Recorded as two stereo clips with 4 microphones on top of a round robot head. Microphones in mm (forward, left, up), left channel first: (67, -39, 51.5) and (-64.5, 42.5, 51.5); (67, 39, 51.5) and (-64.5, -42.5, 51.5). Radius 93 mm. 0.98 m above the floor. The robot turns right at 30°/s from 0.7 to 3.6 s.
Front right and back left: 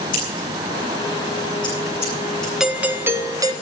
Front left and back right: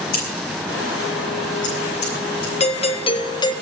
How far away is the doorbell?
About 1.7 m.